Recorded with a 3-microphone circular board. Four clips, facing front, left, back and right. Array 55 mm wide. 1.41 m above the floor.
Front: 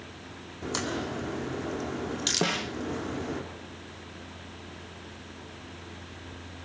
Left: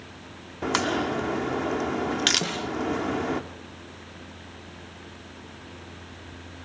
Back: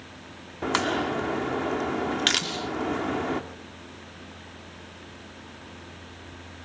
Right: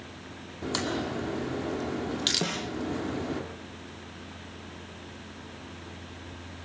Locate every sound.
0.6 s a crack: 135° left, 1.8 m
2.4 s a snare drum: 5° left, 1.2 m